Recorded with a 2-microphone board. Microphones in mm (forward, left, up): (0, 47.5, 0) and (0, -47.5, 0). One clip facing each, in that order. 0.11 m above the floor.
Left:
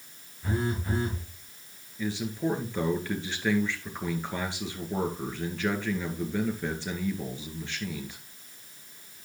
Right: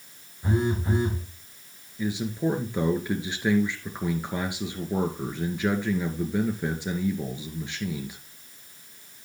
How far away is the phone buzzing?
About 5 m.